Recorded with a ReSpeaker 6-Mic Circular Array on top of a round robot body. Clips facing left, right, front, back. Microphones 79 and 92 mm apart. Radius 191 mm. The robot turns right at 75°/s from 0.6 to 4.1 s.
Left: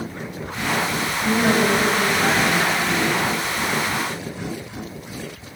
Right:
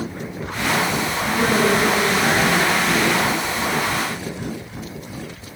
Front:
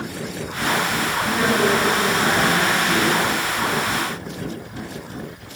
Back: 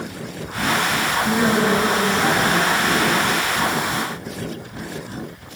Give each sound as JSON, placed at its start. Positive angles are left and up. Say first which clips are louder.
{"t": 1.2, "sound": "a woman speaking", "louder": "even, back 1 dB", "azimuth_deg": 85, "distance_m": 10.0}